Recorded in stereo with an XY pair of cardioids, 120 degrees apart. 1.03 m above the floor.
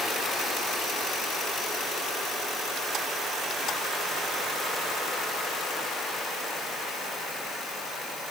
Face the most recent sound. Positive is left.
No sound to turn to.